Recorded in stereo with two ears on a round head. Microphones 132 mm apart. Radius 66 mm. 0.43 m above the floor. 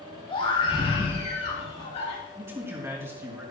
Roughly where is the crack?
No crack in this recording.